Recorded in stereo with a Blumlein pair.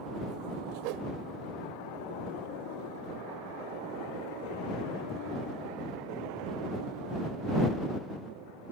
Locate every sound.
0.8 s a whoosh: 45° right